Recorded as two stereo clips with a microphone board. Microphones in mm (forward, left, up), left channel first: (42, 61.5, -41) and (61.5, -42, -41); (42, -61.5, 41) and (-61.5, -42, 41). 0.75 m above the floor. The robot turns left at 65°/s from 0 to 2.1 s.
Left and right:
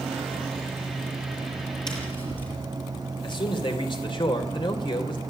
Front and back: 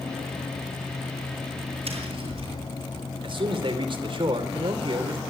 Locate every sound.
1.9 s tapping: 150° left, 6.5 m; by 2.5 s 135° left, 6.5 m
3.2 s a man speaking: 135° left, 3 m